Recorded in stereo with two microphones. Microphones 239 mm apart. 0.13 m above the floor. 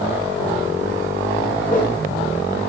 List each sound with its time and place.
1.7 s a whoosh: 35° left (ahead or behind), 2.0 m